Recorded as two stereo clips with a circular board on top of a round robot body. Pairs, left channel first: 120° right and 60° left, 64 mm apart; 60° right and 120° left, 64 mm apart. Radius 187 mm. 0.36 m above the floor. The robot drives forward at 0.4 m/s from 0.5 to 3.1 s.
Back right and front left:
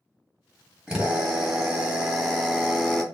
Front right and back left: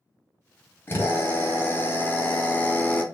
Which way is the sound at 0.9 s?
15° right.